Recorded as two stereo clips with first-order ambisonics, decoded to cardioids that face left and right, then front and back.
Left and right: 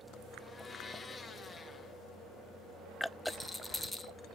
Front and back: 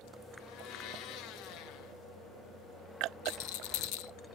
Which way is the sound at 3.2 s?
5° left.